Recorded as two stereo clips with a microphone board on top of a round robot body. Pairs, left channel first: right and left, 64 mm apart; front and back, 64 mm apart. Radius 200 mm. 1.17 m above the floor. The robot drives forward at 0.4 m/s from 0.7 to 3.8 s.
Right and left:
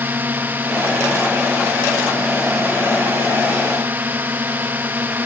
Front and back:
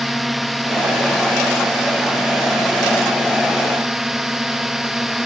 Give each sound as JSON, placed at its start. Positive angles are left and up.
{"t": 0.0, "sound": "a drone", "azimuth_deg": 90}